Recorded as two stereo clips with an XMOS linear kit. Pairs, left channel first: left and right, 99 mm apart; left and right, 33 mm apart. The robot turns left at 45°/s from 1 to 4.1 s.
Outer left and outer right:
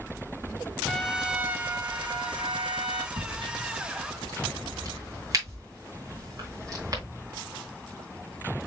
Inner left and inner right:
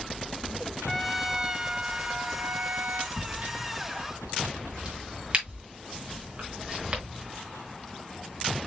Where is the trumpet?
Straight ahead, 0.8 m; by 3.1 s 90° right, 0.8 m.